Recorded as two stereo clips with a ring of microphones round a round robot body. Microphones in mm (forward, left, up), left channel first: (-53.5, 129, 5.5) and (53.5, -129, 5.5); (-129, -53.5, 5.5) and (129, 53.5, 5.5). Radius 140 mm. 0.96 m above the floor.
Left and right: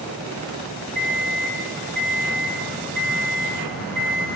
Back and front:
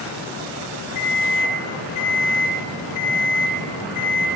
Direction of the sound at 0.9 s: 160° right.